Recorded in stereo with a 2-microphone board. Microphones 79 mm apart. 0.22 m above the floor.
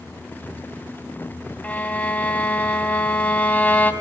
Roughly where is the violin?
Left.